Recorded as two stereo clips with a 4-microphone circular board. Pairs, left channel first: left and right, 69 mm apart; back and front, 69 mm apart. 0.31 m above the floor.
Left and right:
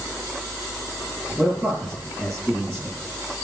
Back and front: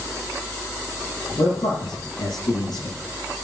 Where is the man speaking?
175° left, 8.5 m.